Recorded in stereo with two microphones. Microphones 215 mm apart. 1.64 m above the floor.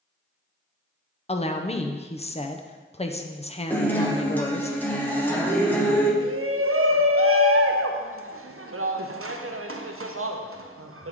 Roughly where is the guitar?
Centre.